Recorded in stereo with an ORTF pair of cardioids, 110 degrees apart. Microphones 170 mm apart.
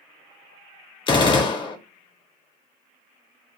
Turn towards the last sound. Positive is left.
turn(degrees=30)